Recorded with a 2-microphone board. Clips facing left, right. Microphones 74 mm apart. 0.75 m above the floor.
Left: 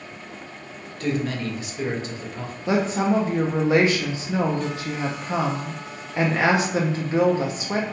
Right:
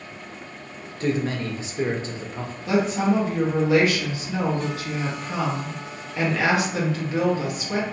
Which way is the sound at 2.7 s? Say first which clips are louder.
Even; 30° left (ahead or behind).